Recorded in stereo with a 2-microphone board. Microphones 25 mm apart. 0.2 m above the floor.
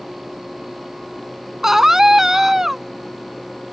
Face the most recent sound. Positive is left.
turn(degrees=-15)  # may be behind; listen again after turning